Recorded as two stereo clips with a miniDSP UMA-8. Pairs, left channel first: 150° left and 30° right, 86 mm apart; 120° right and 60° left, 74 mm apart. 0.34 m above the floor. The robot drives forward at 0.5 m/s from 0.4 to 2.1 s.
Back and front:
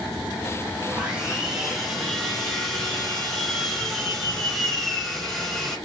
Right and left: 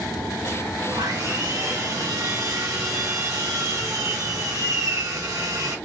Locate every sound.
0.9 s sawing: 45° left, 1.9 m; by 5.8 s 65° left, 1.6 m